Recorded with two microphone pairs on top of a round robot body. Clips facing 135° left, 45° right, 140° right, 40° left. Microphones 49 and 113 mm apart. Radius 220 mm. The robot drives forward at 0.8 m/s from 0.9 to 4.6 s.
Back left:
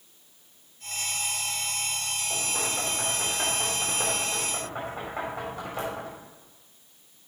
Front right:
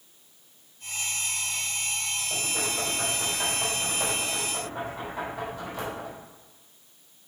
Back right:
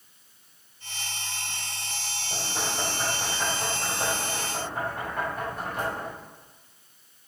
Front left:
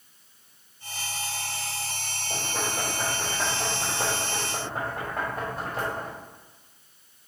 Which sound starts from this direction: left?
Knocking, at 2.3 s.